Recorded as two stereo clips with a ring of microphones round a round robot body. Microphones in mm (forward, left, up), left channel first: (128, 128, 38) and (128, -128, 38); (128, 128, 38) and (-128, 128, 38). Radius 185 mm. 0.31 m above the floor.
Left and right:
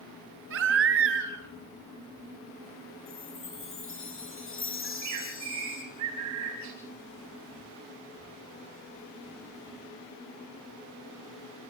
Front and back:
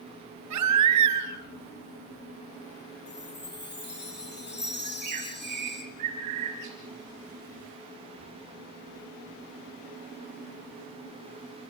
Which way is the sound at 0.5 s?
145° right.